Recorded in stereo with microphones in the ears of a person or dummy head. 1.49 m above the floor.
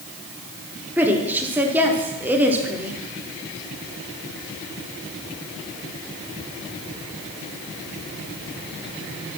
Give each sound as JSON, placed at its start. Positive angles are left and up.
{"t": 1.0, "sound": "a woman speaking", "side_deg": -5, "distance_m": 0.9}